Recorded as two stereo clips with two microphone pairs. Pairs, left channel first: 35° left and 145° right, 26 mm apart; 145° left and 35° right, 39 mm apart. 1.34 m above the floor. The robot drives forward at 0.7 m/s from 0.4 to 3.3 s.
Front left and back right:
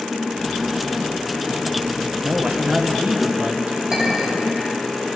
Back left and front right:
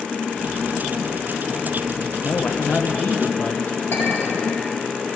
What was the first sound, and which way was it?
A man speaking, 165° right.